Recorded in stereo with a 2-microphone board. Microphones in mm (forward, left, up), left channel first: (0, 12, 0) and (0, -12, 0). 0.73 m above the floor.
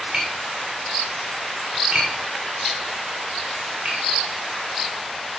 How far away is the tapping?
About 4 m.